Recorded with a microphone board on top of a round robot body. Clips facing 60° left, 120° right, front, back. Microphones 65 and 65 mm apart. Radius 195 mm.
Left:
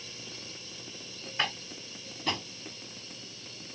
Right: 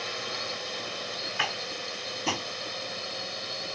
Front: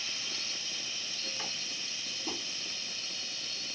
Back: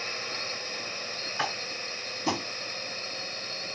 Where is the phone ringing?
I don't hear a phone ringing.